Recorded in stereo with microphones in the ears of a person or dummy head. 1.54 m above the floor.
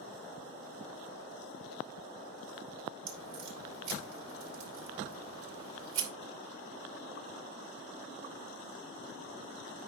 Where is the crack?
65° right (ahead or behind), 5 m.